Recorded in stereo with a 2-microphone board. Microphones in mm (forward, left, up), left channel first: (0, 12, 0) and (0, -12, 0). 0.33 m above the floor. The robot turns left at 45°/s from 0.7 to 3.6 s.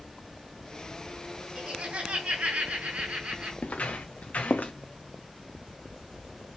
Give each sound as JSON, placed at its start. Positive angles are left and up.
{"t": 1.6, "sound": "laughter", "azimuth_deg": -40, "distance_m": 3.5}
{"t": 3.6, "sound": "footsteps", "side_deg": 80, "distance_m": 2.0}